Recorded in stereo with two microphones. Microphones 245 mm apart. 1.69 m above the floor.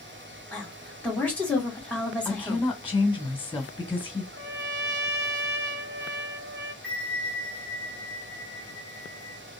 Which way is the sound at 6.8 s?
5° left (ahead or behind).